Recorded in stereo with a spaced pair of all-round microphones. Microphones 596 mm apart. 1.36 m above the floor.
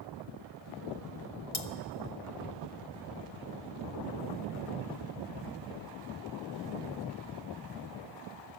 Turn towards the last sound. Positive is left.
turn(degrees=45)  # may be behind; listen again after turning